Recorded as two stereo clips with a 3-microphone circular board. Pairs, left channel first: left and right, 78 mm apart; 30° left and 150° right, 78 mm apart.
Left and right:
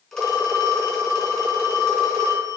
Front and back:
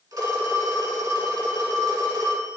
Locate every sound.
0.1 s a phone ringing: straight behind, 1.9 m